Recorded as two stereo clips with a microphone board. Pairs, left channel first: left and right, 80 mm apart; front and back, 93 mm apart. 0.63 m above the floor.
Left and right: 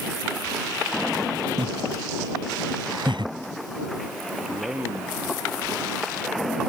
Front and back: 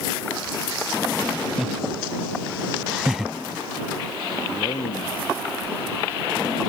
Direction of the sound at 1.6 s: 90° right.